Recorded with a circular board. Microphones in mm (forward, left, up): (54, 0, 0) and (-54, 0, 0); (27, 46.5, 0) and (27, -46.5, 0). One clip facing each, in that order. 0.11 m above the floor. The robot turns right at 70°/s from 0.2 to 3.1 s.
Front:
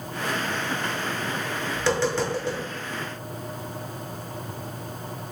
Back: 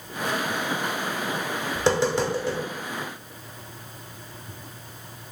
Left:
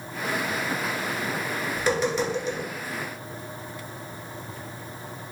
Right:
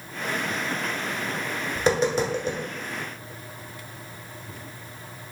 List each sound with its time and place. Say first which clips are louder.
1.8 s tapping: back 2 dB, right 3 dB; 145° right, 1.0 m; by 2.6 s 85° right, 1.0 m